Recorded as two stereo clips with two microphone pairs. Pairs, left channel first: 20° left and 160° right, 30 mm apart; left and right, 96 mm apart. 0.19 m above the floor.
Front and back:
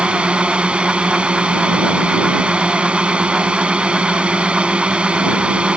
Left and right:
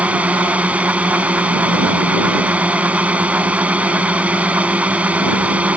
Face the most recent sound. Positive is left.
turn(degrees=-155)